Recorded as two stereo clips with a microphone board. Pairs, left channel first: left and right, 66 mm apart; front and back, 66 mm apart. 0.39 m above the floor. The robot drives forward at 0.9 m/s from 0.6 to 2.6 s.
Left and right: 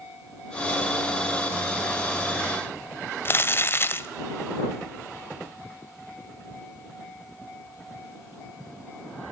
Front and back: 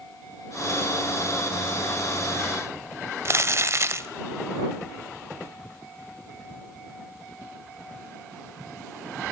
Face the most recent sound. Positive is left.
turn(degrees=140)